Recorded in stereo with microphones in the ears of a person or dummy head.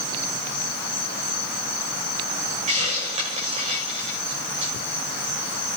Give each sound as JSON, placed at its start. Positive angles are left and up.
{"t": 2.7, "sound": "a hiss", "side_deg": -40, "distance_m": 6.5}